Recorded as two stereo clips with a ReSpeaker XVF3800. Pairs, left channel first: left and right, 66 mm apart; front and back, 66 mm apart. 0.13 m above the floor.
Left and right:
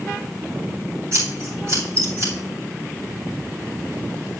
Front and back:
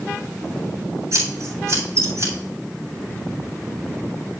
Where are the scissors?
140° right, 7 m.